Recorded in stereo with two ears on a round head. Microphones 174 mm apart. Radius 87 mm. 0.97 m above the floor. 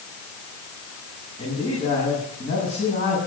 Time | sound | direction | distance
1.4 | a man speaking | 35° left (ahead or behind) | 7.5 m